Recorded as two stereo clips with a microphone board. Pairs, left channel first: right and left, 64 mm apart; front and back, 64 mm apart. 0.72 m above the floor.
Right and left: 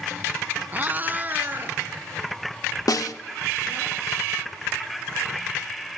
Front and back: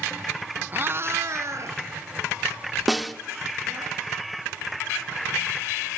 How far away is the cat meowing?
About 0.8 m.